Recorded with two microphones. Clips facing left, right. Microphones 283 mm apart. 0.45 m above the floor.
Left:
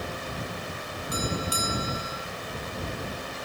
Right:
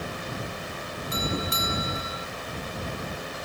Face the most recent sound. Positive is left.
turn(degrees=-25)  # may be behind; listen again after turning